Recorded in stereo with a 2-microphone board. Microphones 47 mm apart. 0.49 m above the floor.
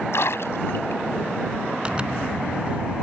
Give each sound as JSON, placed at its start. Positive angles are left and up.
{"t": 0.1, "sound": "a splash", "side_deg": 65}
{"t": 1.9, "sound": "a zipper", "side_deg": -25}